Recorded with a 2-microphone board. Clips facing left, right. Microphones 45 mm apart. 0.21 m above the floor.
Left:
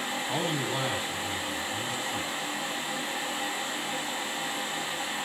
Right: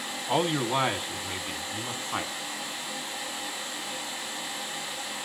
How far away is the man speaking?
About 2.0 m.